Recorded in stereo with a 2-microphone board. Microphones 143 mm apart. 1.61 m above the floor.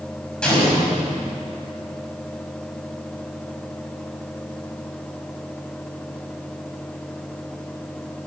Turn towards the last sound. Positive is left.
turn(degrees=5)  # may be behind; listen again after turning